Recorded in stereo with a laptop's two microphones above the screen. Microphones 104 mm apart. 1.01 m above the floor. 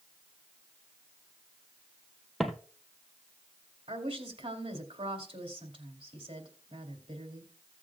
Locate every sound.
2.4 s footsteps: centre (ahead or behind), 1.5 m
3.9 s a woman speaking: 75° right (ahead or behind), 2.5 m